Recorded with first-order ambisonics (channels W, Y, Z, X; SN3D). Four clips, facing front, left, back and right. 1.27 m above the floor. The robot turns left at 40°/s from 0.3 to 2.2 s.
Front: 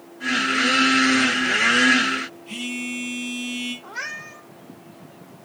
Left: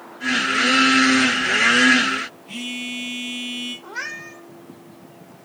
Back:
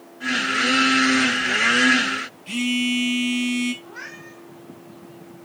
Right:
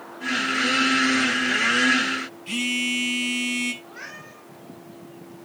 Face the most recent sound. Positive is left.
turn(degrees=65)